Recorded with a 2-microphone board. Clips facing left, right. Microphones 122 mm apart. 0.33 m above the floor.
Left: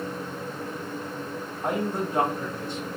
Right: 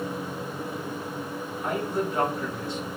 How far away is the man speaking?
About 1.6 m.